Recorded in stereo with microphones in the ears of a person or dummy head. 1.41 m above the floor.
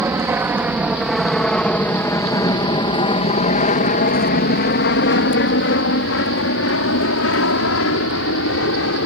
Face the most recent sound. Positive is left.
turn(degrees=75)  # may be behind; listen again after turning